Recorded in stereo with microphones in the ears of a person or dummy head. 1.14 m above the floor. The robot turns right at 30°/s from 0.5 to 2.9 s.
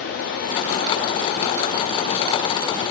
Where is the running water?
85° left, 0.7 m; by 2.9 s 160° left, 0.7 m.